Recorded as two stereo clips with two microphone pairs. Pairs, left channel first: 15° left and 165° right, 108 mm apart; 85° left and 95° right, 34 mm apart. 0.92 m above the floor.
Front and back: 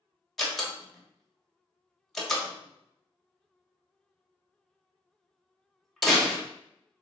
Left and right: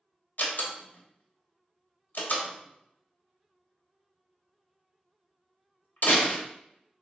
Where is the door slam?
105° left, 1.2 m.